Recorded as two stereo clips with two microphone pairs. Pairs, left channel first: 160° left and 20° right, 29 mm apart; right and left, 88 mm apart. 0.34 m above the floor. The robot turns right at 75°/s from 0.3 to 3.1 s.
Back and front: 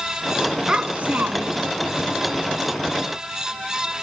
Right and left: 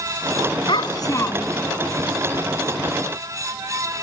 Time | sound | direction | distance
0.7 | a child speaking | 80° right | ?